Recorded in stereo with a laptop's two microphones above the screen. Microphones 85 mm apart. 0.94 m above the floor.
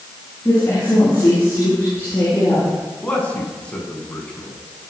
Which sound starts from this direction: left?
A woman speaking, at 0.5 s.